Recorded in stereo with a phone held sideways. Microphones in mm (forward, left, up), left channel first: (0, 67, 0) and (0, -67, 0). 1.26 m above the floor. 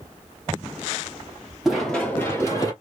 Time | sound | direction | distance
1.6 | running footsteps | 5° right (ahead or behind) | 1.4 m